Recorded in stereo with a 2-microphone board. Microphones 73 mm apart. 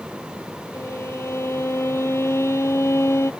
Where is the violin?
40° left (ahead or behind).